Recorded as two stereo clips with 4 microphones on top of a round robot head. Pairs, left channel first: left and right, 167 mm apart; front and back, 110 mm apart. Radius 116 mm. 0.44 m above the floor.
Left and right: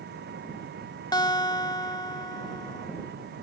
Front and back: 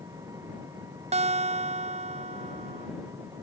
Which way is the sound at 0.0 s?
110° right.